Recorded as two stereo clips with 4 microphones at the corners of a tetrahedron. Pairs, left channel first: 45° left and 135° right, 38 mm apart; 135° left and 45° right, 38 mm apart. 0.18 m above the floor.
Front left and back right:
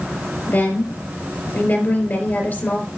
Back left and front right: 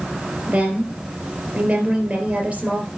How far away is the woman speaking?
About 3.5 m.